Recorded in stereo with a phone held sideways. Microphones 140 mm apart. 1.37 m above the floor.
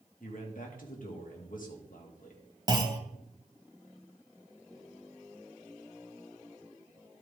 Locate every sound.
0.2 s a man speaking: 75° left (ahead or behind), 2 m
2.7 s a clunk: 30° right (ahead or behind), 1.1 m